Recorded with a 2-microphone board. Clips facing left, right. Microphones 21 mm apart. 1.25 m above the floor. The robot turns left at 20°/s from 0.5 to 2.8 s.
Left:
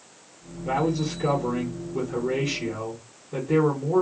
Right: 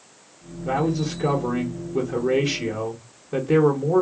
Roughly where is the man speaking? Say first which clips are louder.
Right 1 dB; ahead.